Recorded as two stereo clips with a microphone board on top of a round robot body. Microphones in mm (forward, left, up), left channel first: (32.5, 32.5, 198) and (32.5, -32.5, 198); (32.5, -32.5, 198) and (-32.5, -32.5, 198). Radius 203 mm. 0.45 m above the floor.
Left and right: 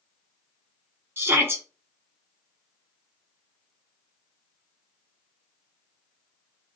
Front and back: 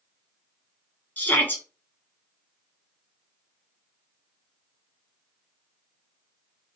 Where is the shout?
45° right, 1.4 m.